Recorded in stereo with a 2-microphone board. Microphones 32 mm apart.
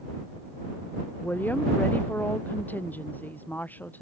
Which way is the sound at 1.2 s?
65° left (ahead or behind).